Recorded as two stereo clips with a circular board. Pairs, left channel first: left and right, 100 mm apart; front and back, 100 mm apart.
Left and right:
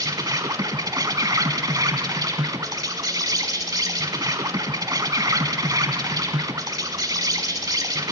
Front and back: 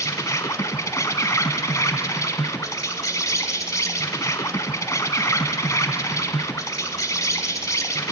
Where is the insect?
50° right, 1.1 m.